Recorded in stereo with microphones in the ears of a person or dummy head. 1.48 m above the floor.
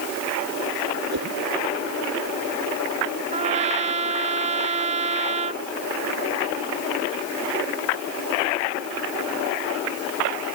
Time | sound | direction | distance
1.1 | a whoosh | 60° right (ahead or behind) | ?
3.3 | a trumpet | 35° right (ahead or behind) | ?